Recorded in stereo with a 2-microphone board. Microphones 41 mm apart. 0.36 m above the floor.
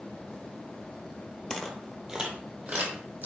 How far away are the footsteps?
About 0.6 m.